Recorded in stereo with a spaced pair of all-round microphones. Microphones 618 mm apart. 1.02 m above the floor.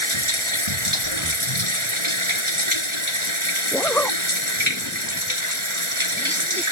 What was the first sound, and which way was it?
Running water, 50° right (ahead or behind).